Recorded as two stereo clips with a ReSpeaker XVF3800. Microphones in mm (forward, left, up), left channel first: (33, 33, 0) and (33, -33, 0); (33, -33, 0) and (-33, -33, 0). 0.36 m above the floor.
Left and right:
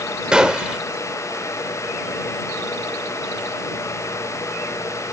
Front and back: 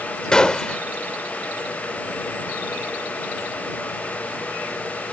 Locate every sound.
0.3 s a gunshot: 45° right